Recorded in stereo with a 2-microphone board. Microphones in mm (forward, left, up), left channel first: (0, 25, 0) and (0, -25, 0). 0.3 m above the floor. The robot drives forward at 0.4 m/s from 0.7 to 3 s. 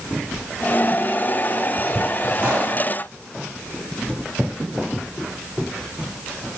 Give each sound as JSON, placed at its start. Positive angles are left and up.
{"t": 2.4, "sound": "a pop", "side_deg": -40, "distance_m": 2.5}